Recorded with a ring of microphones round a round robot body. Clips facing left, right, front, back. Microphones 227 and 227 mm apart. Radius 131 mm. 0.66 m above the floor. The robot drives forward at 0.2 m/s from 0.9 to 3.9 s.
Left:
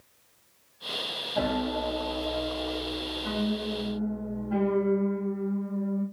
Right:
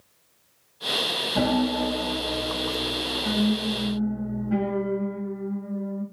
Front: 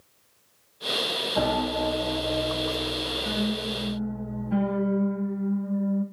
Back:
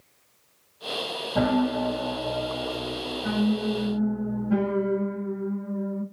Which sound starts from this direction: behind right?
A piano, at 1.4 s.